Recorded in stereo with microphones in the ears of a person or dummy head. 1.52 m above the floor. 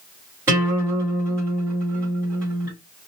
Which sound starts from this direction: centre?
A guitar, at 0.5 s.